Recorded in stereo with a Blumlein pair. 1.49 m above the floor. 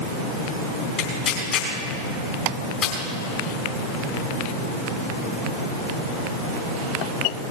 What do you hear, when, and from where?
1.0 s tearing paper: 30° left, 3.5 m